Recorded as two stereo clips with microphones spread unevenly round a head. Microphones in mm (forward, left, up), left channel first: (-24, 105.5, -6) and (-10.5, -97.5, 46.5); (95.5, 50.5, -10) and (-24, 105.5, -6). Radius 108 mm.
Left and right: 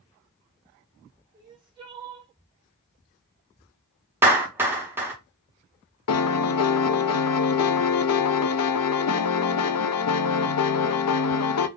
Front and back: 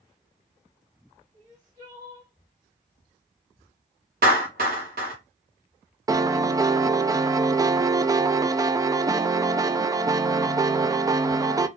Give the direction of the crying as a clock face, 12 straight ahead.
5 o'clock.